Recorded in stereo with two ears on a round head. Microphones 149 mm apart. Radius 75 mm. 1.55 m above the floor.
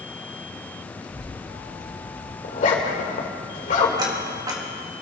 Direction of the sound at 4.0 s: 25° right (ahead or behind).